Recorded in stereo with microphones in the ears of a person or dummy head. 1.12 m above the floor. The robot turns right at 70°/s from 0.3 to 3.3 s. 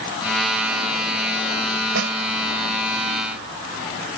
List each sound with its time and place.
1.9 s a snare drum: 80° right; by 2.2 s 65° right (ahead or behind)